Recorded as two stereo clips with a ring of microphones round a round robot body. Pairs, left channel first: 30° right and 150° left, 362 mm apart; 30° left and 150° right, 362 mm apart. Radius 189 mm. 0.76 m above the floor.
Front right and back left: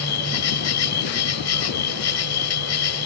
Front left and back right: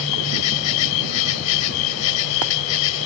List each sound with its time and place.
0.0 s an insect: 20° left